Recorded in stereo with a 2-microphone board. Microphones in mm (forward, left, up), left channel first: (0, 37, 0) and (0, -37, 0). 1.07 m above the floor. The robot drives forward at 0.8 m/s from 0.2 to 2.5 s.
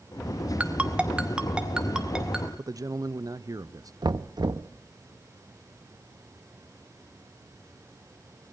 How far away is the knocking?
About 0.6 m.